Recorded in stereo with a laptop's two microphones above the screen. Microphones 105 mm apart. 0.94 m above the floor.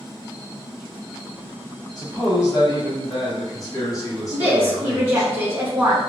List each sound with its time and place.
2.0 s a man speaking: 35° left (ahead or behind), 1.2 m
4.3 s a woman speaking: 25° right (ahead or behind), 0.8 m